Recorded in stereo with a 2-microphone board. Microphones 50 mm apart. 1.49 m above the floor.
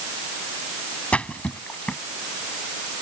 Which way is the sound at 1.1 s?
25° left (ahead or behind).